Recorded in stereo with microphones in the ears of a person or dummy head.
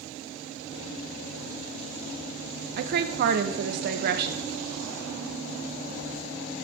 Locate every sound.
2.8 s a woman speaking: 55° right (ahead or behind), 0.7 m